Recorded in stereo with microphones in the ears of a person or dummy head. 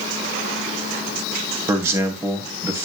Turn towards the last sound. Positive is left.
turn(degrees=-15)  # may be behind; listen again after turning